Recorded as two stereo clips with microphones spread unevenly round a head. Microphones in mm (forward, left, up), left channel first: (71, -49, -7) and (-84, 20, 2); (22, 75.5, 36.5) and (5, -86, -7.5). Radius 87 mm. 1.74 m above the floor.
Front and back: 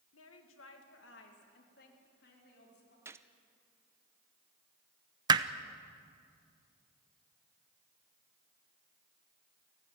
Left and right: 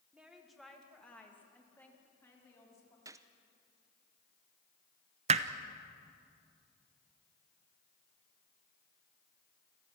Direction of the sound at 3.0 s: 175° right.